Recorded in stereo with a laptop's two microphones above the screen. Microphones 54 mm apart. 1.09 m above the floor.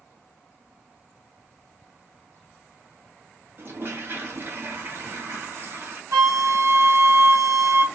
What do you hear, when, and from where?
3.6 s a toilet flushing: 50° right (ahead or behind), 0.7 m
6.1 s a flute: 80° right, 0.7 m